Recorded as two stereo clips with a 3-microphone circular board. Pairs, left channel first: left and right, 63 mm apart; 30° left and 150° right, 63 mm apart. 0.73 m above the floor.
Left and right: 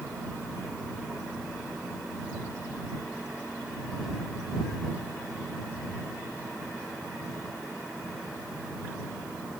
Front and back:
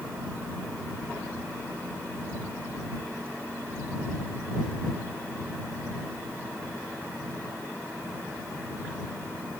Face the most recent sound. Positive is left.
No sound to turn to.